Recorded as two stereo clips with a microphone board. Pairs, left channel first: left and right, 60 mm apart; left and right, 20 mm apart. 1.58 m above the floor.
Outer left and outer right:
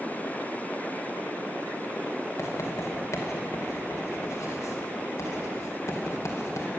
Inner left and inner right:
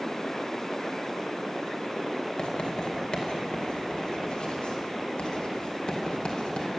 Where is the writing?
60° left (ahead or behind), 2 m.